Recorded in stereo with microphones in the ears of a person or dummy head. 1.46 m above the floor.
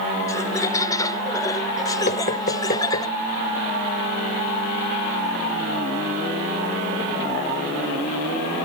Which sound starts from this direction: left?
Knocking, at 2.1 s.